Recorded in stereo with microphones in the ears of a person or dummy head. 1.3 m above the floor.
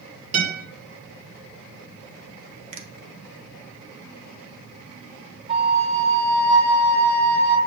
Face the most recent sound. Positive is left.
turn(degrees=-25)  # may be behind; listen again after turning